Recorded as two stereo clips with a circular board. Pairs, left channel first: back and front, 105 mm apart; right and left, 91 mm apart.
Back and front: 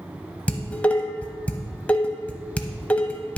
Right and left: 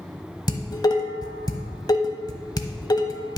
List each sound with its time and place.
0.5 s dishes clattering: 105° right, 0.9 m